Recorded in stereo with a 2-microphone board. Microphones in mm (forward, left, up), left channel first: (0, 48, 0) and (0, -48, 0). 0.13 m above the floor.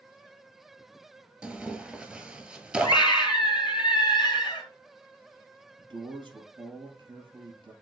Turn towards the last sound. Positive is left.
turn(degrees=-50)  # may be behind; listen again after turning